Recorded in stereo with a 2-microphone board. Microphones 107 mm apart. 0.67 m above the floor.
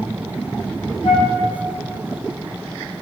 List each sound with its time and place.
1.0 s a flute: 65° left (ahead or behind), 1.7 m